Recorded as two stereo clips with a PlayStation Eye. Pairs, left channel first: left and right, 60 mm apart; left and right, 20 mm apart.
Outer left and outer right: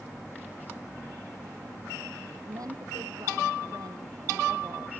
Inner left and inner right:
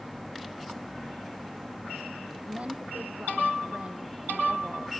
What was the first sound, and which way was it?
A woman speaking, 80° right.